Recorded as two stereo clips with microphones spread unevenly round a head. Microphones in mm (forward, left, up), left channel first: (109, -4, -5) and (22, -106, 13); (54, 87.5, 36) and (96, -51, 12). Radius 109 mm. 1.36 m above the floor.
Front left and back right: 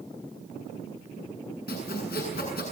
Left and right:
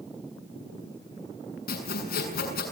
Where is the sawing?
100° left, 7 m.